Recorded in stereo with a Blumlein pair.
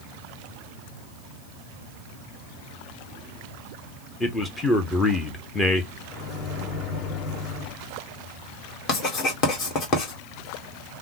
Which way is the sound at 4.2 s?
15° left.